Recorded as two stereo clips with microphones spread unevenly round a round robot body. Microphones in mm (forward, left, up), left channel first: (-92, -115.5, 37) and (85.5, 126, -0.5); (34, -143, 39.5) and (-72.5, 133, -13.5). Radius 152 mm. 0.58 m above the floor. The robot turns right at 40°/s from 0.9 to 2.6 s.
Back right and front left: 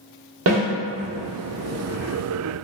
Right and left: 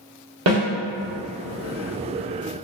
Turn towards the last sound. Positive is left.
turn(degrees=155)